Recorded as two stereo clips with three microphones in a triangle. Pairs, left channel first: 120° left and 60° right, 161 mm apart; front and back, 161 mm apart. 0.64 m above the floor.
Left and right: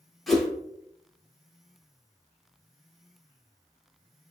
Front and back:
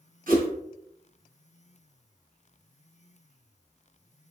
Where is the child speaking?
I don't hear a child speaking.